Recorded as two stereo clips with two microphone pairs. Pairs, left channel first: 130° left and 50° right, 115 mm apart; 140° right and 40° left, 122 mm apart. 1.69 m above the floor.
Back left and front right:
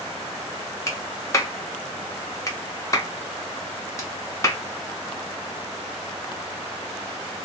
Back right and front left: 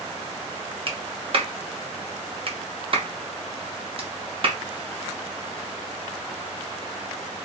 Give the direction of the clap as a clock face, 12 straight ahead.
10 o'clock.